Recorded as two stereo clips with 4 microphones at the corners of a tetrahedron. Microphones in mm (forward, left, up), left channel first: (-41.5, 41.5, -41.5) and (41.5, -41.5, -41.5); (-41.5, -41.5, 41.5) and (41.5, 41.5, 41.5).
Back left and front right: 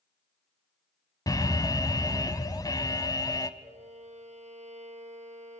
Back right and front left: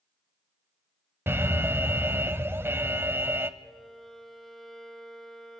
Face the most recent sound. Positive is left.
turn(degrees=-45)